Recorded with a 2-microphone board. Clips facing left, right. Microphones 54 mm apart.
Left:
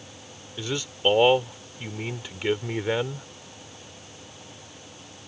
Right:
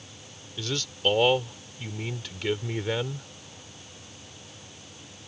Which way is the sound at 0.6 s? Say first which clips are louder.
Left 2 dB; 20° left (ahead or behind).